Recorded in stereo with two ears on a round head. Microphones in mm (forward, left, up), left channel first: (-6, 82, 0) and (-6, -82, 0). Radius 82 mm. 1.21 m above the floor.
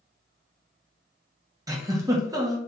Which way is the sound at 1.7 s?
20° right (ahead or behind).